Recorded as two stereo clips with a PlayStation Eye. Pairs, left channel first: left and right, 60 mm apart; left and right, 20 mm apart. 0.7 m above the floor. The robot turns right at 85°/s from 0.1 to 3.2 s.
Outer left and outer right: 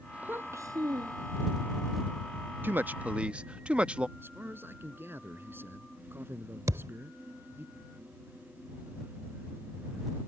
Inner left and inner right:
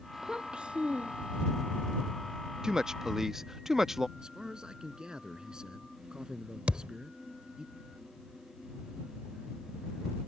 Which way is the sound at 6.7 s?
80° right.